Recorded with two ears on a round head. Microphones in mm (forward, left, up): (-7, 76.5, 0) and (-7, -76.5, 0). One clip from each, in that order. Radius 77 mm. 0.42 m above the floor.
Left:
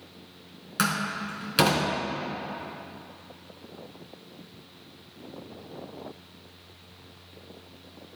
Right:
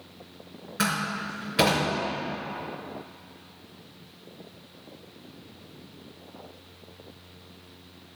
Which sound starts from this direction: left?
A door slam, at 0.8 s.